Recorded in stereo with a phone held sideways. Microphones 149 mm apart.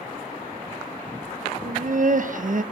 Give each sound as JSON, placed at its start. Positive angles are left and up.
{"t": 1.6, "sound": "laughter", "side_deg": -60, "distance_m": 0.5}